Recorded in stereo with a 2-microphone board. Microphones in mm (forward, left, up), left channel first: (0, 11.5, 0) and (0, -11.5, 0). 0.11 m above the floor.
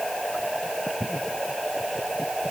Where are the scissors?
No scissors in this recording.